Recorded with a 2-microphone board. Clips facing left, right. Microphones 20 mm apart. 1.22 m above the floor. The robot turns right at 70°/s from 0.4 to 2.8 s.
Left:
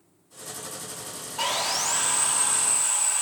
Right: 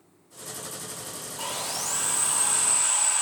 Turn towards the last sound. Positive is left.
turn(degrees=-165)